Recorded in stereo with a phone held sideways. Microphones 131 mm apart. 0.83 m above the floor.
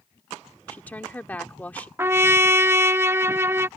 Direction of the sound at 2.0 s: 20° right (ahead or behind).